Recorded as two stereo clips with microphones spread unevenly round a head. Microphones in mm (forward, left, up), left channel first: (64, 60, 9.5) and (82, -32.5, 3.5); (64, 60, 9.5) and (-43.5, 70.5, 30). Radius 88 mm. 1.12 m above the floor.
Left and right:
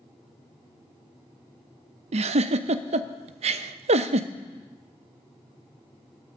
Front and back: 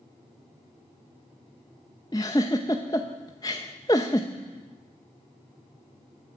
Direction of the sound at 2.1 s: 80° right.